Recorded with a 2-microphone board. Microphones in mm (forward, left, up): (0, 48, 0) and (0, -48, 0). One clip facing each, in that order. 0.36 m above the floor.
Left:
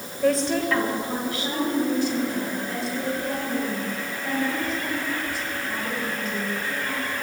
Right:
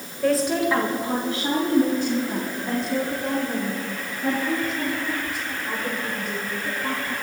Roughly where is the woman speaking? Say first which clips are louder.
Right 1 dB; centre.